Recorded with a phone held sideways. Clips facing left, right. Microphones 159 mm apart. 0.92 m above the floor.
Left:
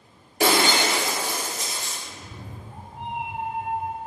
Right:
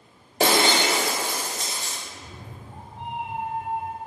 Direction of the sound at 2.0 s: 10° left (ahead or behind).